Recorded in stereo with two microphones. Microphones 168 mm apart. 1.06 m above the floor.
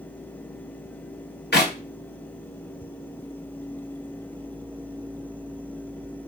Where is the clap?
80° left, 1.1 m.